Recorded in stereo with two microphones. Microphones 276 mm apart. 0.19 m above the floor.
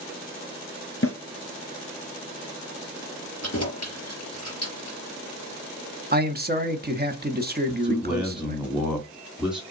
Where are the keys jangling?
60° left (ahead or behind), 3.5 m.